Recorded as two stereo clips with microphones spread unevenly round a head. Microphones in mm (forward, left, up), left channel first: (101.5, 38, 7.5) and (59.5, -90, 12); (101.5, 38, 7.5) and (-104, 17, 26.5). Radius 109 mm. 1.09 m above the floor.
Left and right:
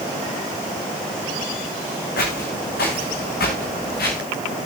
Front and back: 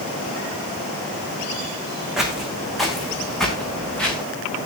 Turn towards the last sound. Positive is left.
turn(degrees=90)